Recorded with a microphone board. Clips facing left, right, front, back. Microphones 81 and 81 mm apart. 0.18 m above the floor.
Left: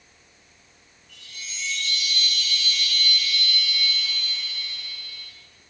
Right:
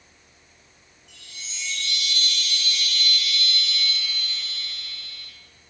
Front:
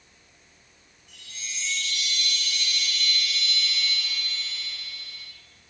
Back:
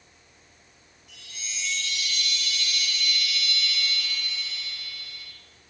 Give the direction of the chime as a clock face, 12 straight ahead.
3 o'clock.